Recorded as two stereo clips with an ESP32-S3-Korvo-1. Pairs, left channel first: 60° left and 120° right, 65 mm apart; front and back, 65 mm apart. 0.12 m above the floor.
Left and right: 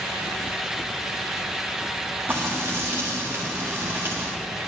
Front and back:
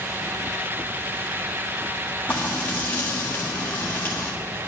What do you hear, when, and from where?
2.3 s frying: 60° right, 1.7 m